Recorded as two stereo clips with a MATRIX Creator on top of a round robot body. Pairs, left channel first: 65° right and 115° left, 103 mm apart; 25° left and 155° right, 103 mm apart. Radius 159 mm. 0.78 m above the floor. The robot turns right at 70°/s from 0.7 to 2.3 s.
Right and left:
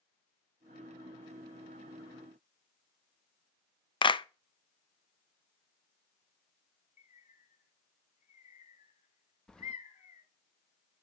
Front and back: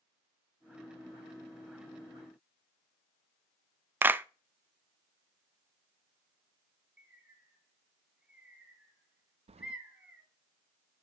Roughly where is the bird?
Right.